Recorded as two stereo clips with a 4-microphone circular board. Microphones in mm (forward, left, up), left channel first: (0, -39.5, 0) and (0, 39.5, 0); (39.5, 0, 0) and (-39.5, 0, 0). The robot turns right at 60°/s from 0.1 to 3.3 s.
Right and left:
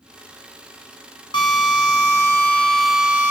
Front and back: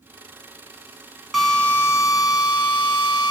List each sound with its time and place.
1.3 s a drill: 95° right, 2 m; by 3.3 s 25° left, 2 m